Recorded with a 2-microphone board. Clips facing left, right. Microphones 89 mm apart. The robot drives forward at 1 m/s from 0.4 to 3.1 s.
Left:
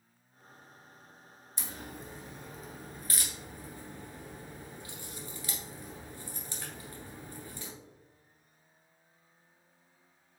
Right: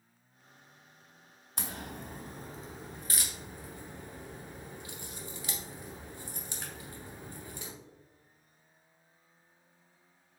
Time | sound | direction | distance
1.6 | a crack | 70° right (ahead or behind) | 0.6 m